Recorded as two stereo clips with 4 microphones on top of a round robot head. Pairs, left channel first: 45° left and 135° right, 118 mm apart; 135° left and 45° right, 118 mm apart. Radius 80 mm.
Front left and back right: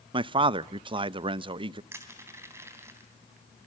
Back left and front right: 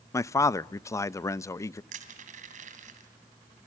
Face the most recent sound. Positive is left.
turn(degrees=-65)